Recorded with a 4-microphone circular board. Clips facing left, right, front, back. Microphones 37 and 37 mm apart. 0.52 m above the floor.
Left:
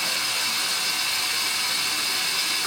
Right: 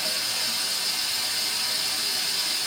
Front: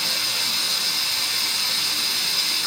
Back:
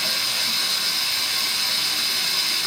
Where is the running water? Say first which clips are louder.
Left 3 dB, back 1 dB; 90° left, 0.9 m.